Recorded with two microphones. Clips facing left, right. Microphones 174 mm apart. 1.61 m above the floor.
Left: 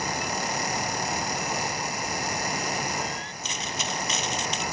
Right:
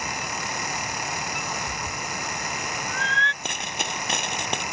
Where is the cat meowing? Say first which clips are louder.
Left 2 dB; 80° right.